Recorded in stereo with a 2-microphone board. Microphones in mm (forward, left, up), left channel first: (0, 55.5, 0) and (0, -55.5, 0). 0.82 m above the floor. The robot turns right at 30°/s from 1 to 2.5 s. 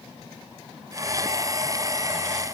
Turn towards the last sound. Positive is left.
No sound to turn to.